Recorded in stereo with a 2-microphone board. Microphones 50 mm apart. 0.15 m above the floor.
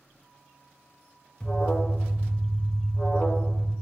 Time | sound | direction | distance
1.4 | an alarm | 20° left (ahead or behind) | 0.8 m